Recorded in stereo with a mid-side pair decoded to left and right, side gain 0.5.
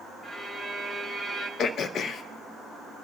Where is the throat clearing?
55° left, 0.8 m.